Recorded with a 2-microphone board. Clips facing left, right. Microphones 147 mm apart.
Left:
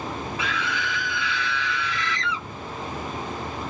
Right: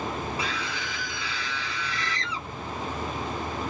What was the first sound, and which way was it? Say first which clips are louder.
A scream: left 3 dB; 35° right (ahead or behind).